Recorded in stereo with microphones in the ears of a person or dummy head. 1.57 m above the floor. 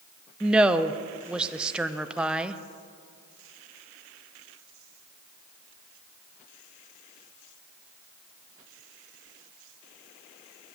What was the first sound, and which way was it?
A woman speaking, 5° right (ahead or behind).